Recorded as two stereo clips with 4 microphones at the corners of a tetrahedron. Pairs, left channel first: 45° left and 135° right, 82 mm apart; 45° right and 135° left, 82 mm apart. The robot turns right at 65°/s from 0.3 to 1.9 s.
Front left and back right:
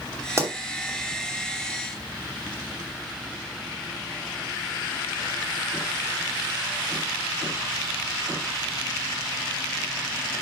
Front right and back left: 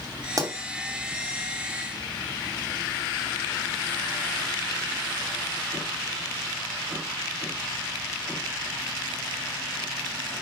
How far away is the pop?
About 2.5 m.